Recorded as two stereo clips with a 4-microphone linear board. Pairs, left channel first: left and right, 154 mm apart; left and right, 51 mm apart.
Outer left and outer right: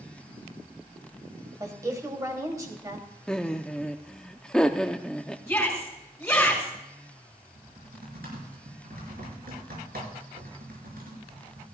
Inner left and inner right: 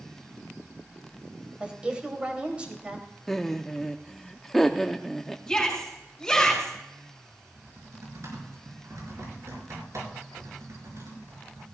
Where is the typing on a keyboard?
85° right, 5.5 m.